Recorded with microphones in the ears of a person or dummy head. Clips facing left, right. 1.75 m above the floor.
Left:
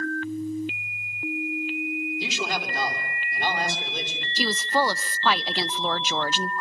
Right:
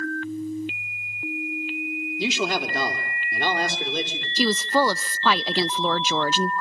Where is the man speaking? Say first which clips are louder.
Right 5 dB; 55° right (ahead or behind), 3.5 m.